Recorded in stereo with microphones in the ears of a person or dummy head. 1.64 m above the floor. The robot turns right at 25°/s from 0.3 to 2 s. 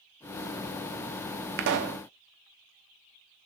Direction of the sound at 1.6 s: 50° right (ahead or behind).